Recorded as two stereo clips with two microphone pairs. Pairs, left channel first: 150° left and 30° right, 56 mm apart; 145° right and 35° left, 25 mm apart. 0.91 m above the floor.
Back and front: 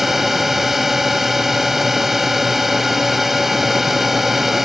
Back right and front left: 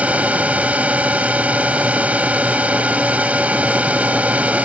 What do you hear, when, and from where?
0.0 s a drone: 55° left